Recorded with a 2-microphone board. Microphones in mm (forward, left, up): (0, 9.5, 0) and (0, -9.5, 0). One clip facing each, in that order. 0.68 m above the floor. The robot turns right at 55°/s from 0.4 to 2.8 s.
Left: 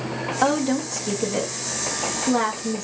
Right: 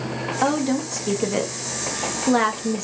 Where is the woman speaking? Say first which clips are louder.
Left 1 dB; 170° left, 1.4 m; by 2.8 s 60° right, 1.4 m.